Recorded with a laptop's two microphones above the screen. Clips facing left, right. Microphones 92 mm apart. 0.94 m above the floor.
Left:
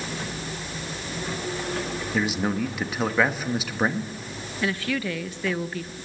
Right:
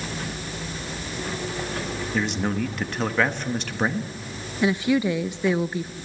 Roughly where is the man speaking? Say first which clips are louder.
Even; centre.